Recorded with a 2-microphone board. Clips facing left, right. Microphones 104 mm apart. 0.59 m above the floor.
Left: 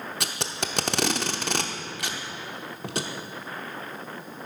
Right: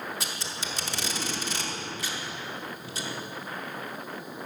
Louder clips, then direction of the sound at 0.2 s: Left 4 dB; 60° left (ahead or behind).